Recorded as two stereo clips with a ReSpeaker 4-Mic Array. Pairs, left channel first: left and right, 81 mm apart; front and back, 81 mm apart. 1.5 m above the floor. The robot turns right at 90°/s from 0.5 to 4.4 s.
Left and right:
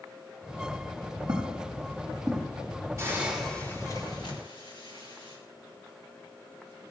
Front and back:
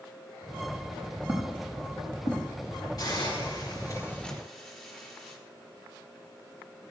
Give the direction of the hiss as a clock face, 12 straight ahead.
1 o'clock.